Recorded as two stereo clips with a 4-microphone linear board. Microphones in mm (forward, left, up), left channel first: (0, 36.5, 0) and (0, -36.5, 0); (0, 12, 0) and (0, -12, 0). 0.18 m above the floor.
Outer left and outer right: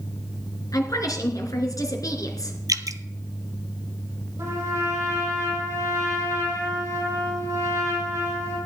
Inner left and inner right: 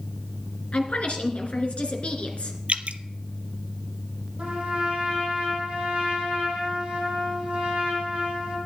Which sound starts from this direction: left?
A woman speaking, at 0.7 s.